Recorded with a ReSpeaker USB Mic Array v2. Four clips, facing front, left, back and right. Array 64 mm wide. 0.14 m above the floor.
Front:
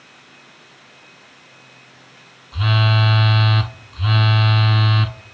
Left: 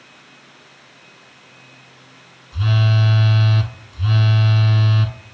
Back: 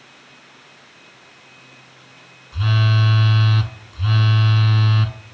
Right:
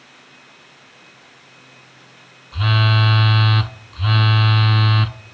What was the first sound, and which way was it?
A phone buzzing, 65° right.